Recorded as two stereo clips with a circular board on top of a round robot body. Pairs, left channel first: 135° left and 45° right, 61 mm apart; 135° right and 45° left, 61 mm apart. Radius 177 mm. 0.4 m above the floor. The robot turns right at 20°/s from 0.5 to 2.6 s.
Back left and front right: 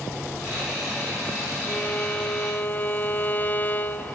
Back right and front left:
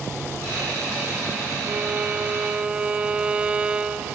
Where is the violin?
80° left, 1.6 m; by 4.2 s 100° left, 1.6 m.